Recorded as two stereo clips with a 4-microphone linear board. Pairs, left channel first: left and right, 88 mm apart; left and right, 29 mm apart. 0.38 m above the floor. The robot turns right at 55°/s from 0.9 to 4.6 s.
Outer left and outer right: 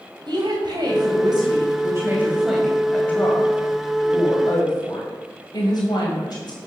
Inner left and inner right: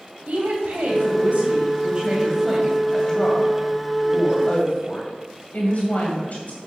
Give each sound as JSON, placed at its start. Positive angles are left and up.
{"t": 0.3, "sound": "a woman speaking", "azimuth_deg": -95, "distance_m": 2.5}